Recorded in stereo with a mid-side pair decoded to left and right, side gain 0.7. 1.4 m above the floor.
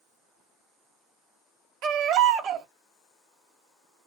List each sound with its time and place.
1.8 s a baby crying: 45° right, 1.2 m